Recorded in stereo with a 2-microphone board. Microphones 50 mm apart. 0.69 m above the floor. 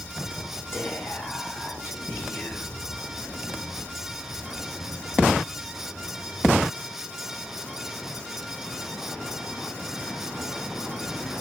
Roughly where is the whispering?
Left.